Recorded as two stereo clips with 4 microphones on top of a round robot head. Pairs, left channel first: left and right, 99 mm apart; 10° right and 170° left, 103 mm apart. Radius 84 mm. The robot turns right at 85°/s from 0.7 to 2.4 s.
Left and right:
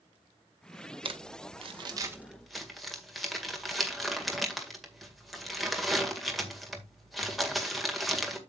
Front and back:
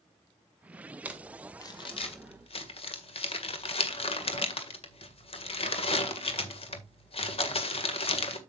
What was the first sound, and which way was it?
Crumpling, 115° right.